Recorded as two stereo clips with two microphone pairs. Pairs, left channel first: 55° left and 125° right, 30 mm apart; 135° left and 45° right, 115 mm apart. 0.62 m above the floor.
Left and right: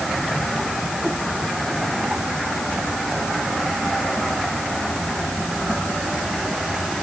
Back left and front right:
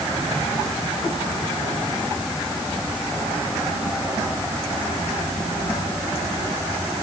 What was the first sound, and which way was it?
Only background noise.